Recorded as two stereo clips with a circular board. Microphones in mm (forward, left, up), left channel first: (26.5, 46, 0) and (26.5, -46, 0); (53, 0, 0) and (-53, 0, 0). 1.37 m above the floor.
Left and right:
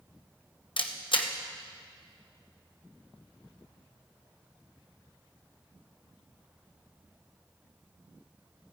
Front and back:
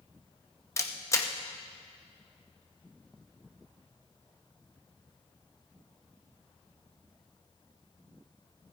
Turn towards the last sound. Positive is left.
turn(degrees=60)